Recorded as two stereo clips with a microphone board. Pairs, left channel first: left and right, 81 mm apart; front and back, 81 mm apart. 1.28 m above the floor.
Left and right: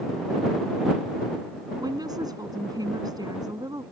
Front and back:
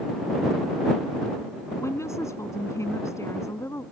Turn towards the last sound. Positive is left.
turn(degrees=-55)